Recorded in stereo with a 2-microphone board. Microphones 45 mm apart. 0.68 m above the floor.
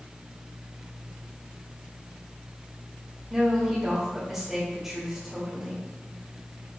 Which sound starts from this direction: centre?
A woman speaking, at 3.3 s.